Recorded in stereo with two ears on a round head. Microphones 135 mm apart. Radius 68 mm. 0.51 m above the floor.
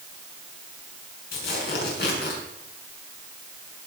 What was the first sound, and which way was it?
Tearing paper, 80° left.